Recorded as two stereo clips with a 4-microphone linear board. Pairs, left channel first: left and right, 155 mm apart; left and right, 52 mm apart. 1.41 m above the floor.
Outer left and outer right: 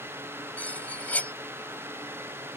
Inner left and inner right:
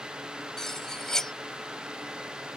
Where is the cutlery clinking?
10° left (ahead or behind).